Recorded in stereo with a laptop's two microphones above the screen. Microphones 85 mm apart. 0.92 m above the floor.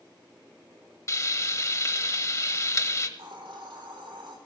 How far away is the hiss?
About 3 m.